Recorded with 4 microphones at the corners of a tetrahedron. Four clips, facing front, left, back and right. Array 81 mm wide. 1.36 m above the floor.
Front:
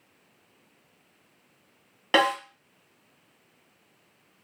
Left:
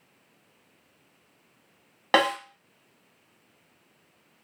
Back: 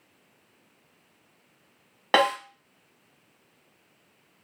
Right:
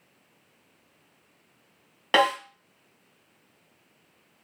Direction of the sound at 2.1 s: 140° left.